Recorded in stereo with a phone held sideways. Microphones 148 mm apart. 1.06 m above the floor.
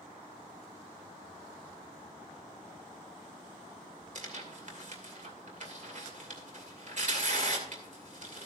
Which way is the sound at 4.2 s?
55° right (ahead or behind).